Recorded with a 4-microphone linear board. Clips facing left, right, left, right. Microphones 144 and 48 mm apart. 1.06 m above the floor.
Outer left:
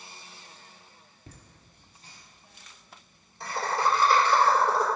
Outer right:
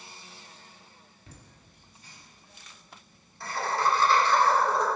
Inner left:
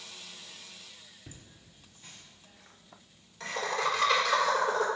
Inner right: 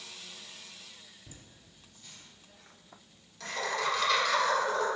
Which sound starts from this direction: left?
Laughter, at 1.3 s.